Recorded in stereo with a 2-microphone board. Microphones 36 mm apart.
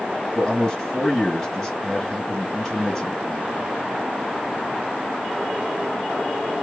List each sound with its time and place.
0.3 s a man speaking: 15° left (ahead or behind), 1.9 m